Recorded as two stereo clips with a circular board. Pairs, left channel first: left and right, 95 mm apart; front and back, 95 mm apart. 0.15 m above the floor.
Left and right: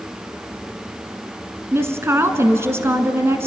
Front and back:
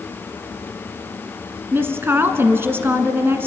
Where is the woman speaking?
130° right, 1.3 m.